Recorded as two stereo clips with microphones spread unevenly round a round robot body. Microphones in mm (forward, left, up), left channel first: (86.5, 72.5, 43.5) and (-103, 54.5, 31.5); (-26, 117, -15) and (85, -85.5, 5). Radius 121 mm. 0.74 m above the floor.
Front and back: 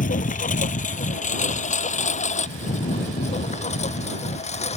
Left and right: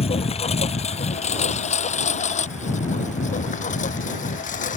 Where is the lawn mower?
50° left; by 4.8 s 60° left.